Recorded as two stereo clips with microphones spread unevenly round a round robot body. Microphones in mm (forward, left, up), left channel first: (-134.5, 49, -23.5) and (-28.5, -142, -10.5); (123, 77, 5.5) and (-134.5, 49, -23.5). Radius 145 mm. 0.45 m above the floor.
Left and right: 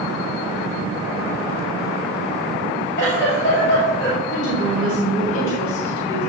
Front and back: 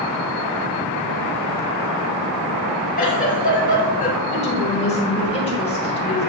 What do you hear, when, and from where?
3.0 s a giggle: 65° left, 2.5 m
4.3 s a woman speaking: 75° left, 2.5 m